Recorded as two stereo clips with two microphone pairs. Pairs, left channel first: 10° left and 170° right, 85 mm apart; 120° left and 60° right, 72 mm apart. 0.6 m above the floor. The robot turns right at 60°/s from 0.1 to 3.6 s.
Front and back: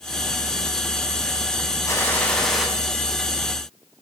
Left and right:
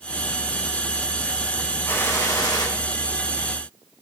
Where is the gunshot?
60° left, 0.8 m; by 2.6 s 105° left, 0.8 m.